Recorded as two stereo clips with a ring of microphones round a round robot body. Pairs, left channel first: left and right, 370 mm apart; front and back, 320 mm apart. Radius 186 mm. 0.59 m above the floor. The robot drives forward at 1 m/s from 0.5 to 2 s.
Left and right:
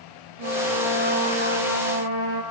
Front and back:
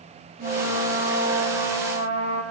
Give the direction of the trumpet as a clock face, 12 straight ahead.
4 o'clock.